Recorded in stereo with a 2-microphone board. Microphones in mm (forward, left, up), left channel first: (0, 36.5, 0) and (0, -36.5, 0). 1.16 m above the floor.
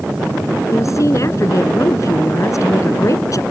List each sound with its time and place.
0.7 s a woman speaking: 45° left (ahead or behind); by 3.4 s 50° left (ahead or behind)